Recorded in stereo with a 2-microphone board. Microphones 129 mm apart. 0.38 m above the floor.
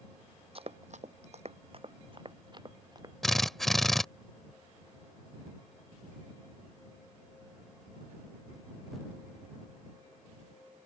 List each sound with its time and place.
0.6 s running footsteps: 50° right (ahead or behind); by 3.1 s 30° right (ahead or behind)
3.2 s a drill: centre (ahead or behind)